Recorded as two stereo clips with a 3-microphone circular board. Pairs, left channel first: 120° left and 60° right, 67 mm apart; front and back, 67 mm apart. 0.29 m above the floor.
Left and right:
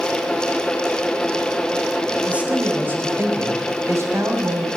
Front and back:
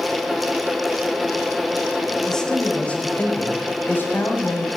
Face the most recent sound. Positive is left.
turn(degrees=-45)